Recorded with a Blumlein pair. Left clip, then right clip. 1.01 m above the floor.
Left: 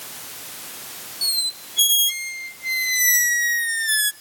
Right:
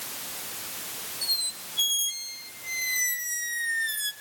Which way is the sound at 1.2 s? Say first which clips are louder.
Left 6 dB; 60° left.